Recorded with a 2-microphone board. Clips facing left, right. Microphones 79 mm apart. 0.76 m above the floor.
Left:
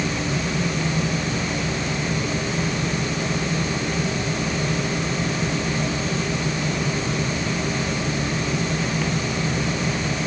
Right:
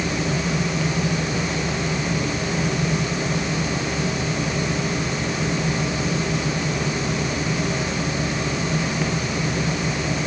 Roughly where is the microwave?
I don't hear a microwave.